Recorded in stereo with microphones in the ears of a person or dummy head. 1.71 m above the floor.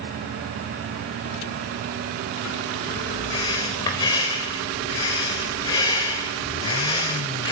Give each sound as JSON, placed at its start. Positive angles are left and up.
{"t": 3.3, "sound": "breathing", "side_deg": 20, "distance_m": 3.5}